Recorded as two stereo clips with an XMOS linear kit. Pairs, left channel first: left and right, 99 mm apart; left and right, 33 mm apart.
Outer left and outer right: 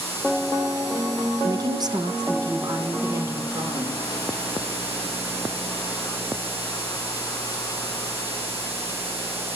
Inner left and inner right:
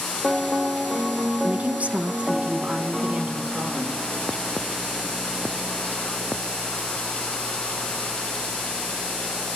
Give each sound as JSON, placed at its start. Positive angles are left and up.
{"t": 1.4, "sound": "a woman speaking", "side_deg": -40, "distance_m": 0.8}